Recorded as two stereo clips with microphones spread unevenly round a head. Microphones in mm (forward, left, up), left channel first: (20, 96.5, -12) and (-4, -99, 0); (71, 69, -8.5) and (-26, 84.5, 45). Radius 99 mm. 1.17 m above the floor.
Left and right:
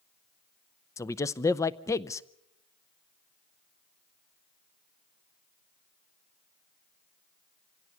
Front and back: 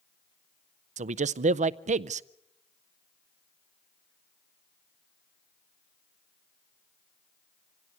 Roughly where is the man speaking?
Behind left.